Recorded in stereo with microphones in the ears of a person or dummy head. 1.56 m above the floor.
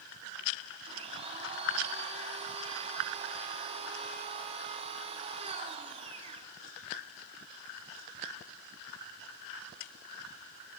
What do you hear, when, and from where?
0.9 s a blender: 25° right (ahead or behind), 0.9 m